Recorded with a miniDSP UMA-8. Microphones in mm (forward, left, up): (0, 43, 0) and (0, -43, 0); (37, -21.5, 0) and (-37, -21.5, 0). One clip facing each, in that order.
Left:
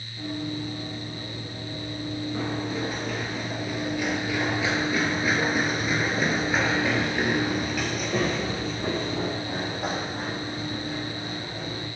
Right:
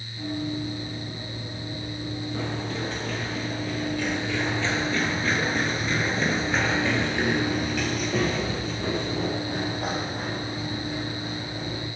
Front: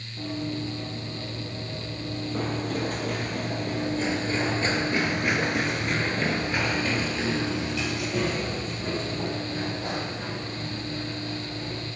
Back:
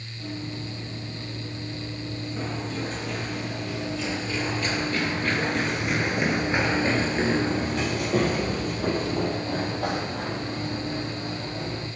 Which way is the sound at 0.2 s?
5° left.